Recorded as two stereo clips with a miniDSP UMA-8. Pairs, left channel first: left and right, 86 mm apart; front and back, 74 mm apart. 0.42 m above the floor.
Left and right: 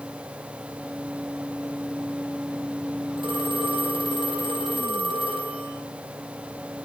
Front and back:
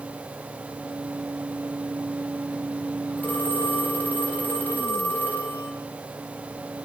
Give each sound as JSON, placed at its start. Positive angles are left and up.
{"t": 3.2, "sound": "a phone ringing", "azimuth_deg": -65, "distance_m": 9.5}